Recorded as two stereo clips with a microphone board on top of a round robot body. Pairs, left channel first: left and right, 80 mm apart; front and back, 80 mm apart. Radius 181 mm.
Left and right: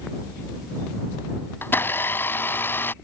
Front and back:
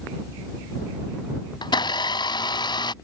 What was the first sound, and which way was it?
A blender, 25° left.